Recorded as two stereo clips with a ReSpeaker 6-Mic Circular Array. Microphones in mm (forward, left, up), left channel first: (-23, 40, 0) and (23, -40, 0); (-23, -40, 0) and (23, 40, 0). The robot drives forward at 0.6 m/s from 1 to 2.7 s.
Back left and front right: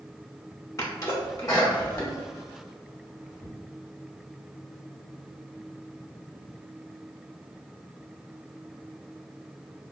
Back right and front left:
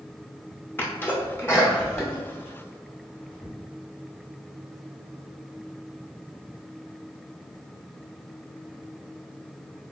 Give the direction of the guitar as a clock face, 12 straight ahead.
No guitar in this recording.